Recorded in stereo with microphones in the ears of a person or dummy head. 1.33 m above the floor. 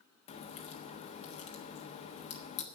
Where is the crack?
40° left (ahead or behind), 1.2 m.